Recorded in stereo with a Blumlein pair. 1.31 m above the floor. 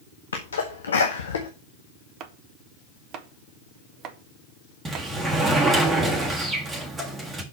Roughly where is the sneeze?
Left.